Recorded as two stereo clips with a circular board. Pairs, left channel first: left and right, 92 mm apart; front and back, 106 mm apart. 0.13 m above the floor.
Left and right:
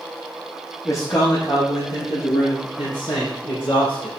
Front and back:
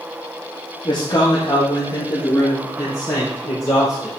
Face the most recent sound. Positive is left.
turn(degrees=65)